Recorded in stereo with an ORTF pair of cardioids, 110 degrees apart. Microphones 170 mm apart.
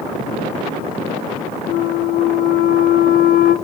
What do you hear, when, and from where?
1.7 s a flute: 55° left, 0.6 m